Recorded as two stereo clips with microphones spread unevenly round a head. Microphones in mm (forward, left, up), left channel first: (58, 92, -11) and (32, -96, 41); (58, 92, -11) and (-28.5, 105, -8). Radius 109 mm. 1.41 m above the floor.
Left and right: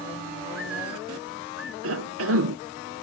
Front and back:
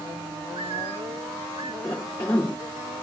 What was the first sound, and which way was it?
A bird, 175° left.